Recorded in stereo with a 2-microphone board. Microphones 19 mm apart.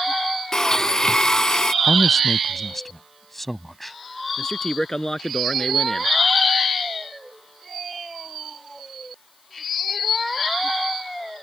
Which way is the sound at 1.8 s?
10° left (ahead or behind).